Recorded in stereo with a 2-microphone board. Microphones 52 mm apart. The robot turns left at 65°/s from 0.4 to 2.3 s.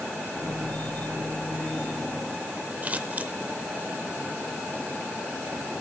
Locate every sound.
2.8 s scissors: 30° right (ahead or behind), 0.6 m